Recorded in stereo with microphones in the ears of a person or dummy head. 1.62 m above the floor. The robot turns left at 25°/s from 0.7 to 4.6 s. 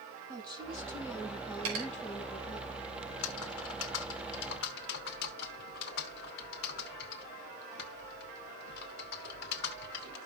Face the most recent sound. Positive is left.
turn(degrees=65)